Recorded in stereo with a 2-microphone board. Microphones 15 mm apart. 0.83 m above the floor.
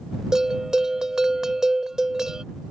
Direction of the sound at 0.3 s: 45° right (ahead or behind).